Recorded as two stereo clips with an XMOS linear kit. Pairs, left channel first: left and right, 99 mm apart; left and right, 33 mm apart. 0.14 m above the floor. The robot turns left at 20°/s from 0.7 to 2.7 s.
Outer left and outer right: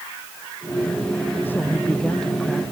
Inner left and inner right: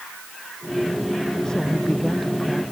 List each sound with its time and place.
1.4 s a woman speaking: 20° left (ahead or behind); by 2.6 s centre (ahead or behind)